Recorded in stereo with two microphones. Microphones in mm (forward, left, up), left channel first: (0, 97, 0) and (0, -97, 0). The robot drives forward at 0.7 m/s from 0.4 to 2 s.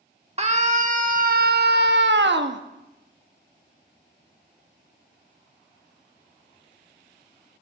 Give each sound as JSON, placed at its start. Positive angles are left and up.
{"t": 0.4, "sound": "a scream", "side_deg": -35, "distance_m": 1.6}